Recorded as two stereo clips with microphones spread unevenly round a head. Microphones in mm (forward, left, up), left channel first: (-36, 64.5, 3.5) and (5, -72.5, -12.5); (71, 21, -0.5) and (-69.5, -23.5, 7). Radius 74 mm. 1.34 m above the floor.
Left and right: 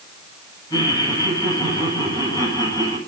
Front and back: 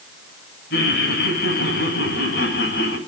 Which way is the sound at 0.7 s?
40° left.